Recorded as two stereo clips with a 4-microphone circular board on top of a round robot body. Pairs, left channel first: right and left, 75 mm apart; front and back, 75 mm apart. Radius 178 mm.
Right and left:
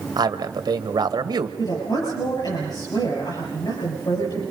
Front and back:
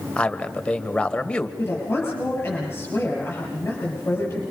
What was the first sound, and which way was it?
A man speaking, 75° left.